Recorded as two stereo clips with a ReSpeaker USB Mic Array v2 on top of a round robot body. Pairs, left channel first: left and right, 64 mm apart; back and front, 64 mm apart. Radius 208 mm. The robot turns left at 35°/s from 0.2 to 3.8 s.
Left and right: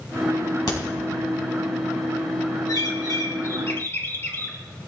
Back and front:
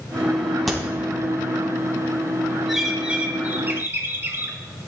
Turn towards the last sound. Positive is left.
turn(degrees=45)